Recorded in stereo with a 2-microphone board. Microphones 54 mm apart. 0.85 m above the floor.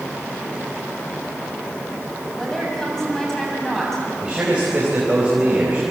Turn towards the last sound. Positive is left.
turn(degrees=-20)  # may be behind; listen again after turning